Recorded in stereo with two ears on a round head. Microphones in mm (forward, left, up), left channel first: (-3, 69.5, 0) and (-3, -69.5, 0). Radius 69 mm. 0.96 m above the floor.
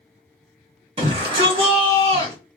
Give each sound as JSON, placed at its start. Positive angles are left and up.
{"t": 1.0, "sound": "a shout", "side_deg": -35, "distance_m": 1.6}